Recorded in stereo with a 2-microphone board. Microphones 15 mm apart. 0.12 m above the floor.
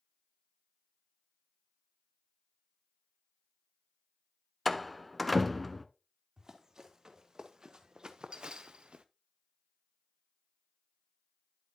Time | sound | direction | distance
4.7 | a door slam | 5° left (ahead or behind) | 0.7 m
6.4 | running footsteps | 35° right (ahead or behind) | 2.5 m